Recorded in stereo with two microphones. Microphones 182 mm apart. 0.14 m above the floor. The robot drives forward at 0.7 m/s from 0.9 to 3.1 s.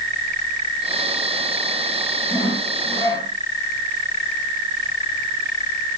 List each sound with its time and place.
2.3 s sawing: 20° left (ahead or behind), 4 m